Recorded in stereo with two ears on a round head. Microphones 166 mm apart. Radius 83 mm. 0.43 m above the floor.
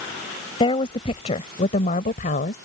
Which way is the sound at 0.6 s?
30° left (ahead or behind).